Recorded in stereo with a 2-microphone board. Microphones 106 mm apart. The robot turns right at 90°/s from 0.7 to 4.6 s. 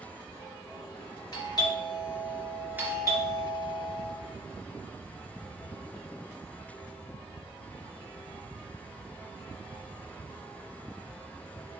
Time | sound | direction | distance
1.3 | a doorbell | 75° left | 2.5 m